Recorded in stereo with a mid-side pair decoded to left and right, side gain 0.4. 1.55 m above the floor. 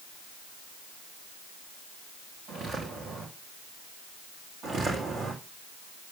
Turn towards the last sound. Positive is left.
turn(degrees=-60)